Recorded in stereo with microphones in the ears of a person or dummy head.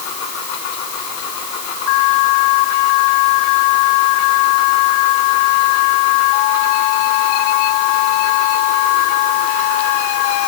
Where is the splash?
I don't hear a splash.